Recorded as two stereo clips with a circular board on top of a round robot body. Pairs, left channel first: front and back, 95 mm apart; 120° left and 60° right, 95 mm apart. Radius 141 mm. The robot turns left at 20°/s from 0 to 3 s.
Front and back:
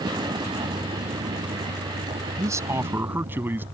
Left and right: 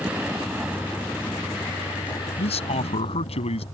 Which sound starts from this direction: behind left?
A man speaking, at 2.4 s.